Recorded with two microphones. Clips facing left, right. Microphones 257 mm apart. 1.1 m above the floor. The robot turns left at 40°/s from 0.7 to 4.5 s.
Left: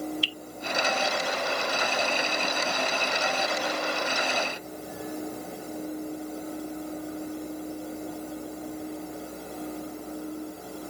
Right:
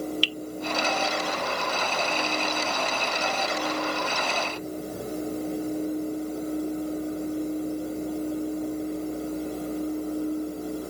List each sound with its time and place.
0.2 s dripping: 90° right